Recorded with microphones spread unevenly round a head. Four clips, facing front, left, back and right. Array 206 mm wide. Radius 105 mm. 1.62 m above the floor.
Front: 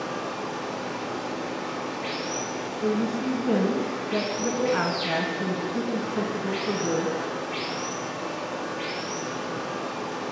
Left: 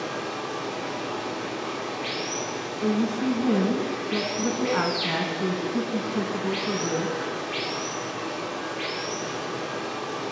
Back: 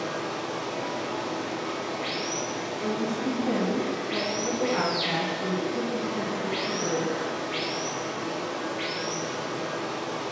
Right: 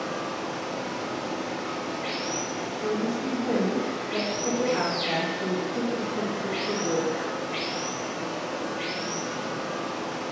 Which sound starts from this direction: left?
A woman speaking, at 2.8 s.